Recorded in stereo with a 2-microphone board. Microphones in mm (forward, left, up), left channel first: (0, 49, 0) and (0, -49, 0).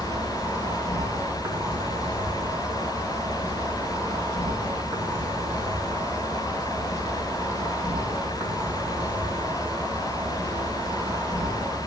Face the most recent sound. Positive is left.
turn(degrees=-35)  # may be behind; listen again after turning